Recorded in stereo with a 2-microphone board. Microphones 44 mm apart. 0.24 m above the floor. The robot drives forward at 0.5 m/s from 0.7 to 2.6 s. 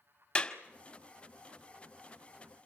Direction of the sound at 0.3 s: 20° left (ahead or behind).